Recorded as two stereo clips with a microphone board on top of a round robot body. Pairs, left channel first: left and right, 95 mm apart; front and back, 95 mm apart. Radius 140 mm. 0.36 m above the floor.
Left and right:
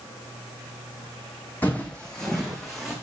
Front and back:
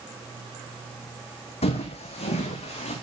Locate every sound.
1.6 s footsteps: 15° left, 1.5 m; by 2.9 s straight ahead, 2 m